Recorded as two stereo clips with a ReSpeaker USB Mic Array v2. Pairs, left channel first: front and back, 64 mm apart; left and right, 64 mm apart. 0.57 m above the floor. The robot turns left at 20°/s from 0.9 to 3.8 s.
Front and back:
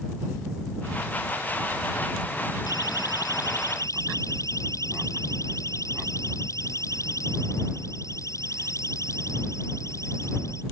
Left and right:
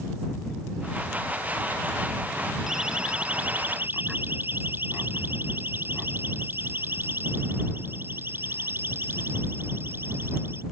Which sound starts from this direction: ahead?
A siren, at 2.7 s.